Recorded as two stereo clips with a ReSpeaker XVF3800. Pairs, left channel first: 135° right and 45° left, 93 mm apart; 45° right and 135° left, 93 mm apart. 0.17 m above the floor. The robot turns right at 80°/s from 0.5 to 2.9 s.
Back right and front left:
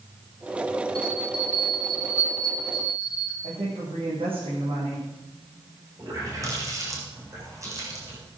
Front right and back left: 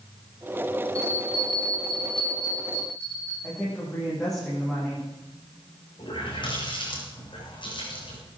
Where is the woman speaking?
40° left, 7 m.